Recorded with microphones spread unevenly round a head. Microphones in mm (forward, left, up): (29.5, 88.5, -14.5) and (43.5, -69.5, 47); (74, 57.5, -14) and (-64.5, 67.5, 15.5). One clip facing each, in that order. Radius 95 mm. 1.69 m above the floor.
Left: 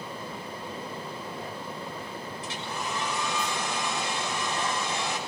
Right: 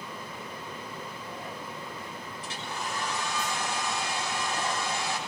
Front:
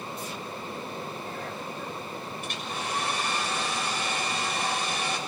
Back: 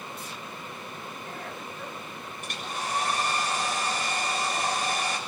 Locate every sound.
2.4 s a hair dryer: 135° left, 7 m